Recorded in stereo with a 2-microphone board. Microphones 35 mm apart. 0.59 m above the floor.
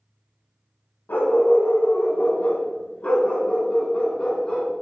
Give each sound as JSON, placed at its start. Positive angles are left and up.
{"t": 1.1, "sound": "a dog barking", "side_deg": 80, "distance_m": 1.8}